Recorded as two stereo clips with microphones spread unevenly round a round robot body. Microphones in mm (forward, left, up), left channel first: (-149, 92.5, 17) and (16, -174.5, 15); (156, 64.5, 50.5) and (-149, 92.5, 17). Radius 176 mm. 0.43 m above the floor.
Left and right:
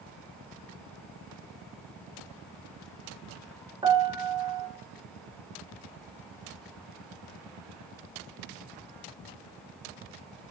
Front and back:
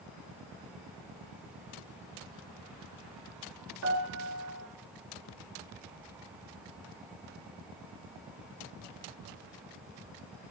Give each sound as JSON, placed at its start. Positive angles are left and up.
{"t": 3.8, "sound": "a piano", "azimuth_deg": -135, "distance_m": 3.0}